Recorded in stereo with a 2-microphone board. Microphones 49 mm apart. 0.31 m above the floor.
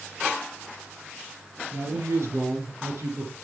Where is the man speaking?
65° right (ahead or behind), 4 m; by 3.3 s 70° right (ahead or behind), 3.5 m.